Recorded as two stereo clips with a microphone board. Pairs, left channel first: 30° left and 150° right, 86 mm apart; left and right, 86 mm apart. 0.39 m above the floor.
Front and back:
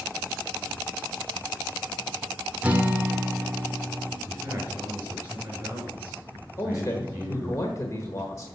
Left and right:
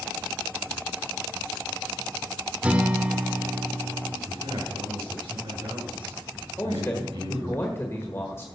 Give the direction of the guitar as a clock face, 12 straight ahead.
4 o'clock.